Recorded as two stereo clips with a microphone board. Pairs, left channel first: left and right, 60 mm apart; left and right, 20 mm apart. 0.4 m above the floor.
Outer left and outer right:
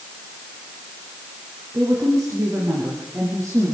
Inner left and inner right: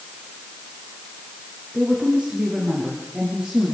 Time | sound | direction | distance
1.7 | a woman speaking | 60° right (ahead or behind) | 6 m